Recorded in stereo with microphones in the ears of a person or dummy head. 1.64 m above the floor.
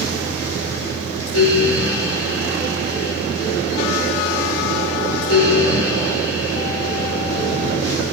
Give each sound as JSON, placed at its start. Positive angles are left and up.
{"t": 0.0, "sound": "a fan", "side_deg": 80, "distance_m": 9.0}